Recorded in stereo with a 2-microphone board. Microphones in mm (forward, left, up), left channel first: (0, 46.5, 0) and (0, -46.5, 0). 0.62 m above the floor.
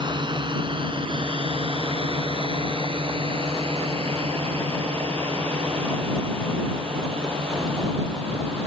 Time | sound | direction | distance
0.0 | a drone | 55° right (ahead or behind) | ?